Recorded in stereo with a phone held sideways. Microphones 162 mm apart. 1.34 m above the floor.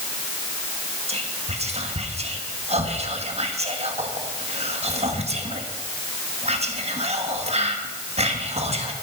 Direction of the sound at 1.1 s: 40° right (ahead or behind).